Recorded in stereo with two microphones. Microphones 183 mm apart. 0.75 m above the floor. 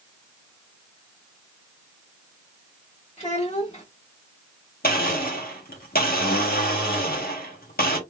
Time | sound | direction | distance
3.2 | a child speaking | 40° left (ahead or behind) | 1.0 m
4.8 | a blender | 55° left (ahead or behind) | 1.3 m